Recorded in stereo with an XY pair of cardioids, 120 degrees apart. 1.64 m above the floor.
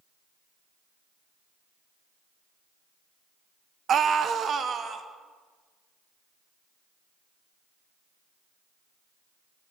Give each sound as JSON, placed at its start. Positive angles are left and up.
{"t": 3.9, "sound": "a scream", "azimuth_deg": -50, "distance_m": 1.4}